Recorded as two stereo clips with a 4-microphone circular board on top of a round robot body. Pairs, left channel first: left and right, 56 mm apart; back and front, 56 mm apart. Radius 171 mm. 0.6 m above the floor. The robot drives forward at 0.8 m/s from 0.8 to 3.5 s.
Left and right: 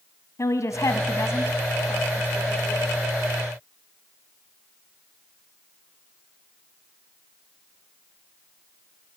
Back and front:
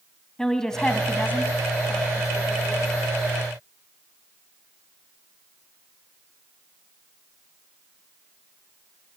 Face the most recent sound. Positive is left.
turn(degrees=165)